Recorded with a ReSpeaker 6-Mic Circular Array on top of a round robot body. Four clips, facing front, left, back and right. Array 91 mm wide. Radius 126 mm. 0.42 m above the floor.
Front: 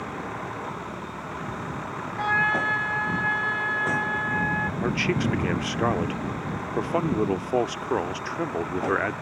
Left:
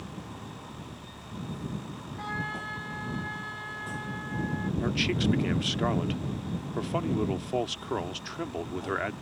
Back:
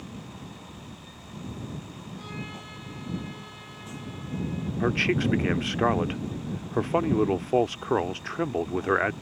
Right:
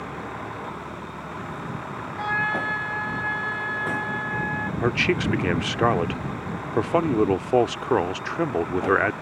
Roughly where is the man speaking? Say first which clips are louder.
Right 7 dB, back 3 dB; right.